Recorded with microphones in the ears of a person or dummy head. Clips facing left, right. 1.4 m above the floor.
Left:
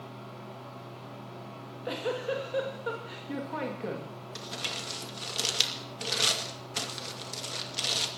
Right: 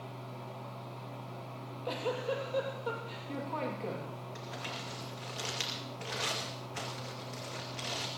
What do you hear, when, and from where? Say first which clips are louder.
0.0 s a fan: left 1 dB; 15° left (ahead or behind), 2.5 m
1.5 s a giggle: left 3 dB; 20° left (ahead or behind), 2.5 m
4.3 s crumpling: left 2 dB; 50° left (ahead or behind), 2.5 m